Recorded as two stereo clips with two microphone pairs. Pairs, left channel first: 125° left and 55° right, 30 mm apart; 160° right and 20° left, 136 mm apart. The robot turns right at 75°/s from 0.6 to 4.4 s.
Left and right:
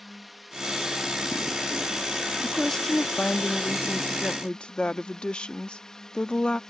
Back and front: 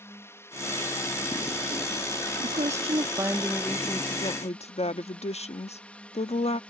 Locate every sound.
0.0 s a drone: 145° right; by 6.7 s 140° left
2.4 s a woman speaking: 25° left; by 6.6 s 170° left